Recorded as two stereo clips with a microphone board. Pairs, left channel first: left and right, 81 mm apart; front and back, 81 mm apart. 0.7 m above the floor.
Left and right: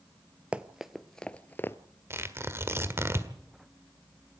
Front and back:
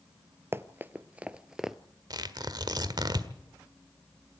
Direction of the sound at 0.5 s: 150° right.